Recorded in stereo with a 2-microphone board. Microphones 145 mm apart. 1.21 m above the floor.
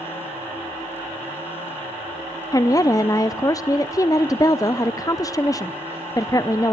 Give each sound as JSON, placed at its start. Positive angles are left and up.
{"t": 2.5, "sound": "a woman speaking", "side_deg": 25, "distance_m": 0.6}